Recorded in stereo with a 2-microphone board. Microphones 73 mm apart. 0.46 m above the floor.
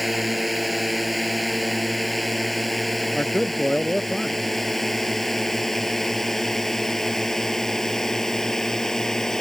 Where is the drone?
Centre (ahead or behind); by 9.4 s 5° left (ahead or behind).